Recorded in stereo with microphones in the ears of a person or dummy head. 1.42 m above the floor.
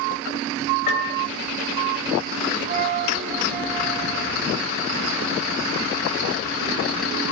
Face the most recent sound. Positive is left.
turn(degrees=-45)  # may be behind; listen again after turning